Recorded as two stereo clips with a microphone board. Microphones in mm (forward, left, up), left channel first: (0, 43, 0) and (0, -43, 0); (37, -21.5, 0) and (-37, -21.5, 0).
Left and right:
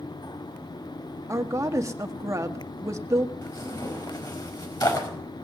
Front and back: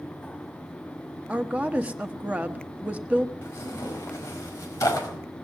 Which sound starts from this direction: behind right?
A woman speaking, at 1.3 s.